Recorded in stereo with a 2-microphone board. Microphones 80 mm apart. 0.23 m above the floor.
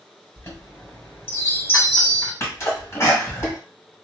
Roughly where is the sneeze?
Left.